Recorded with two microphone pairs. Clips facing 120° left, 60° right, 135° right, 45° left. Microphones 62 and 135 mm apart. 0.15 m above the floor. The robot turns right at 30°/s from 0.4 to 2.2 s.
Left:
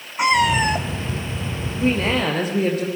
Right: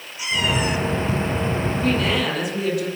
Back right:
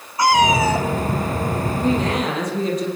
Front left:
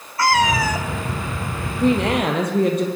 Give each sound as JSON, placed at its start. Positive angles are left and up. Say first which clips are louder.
{"t": 0.2, "sound": "a cat meowing", "louder": "left 6 dB, back right 3 dB", "azimuth_deg": 150, "distance_m": 1.4}
{"t": 1.8, "sound": "a woman speaking", "louder": "left 3 dB, front left 4 dB", "azimuth_deg": 55, "distance_m": 5.0}